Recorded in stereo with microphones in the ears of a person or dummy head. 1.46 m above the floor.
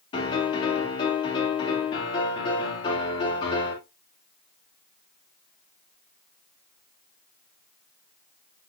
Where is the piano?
30° left (ahead or behind), 3 m.